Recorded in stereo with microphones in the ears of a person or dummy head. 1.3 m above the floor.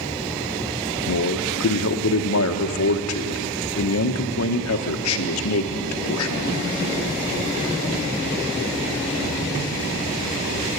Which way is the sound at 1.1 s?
70° left (ahead or behind).